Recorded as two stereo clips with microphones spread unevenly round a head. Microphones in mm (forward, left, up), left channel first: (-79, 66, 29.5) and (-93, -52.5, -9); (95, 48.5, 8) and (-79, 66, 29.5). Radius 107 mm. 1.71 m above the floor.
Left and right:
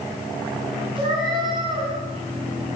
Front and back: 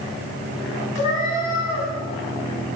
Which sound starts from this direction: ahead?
A cat meowing, at 0.9 s.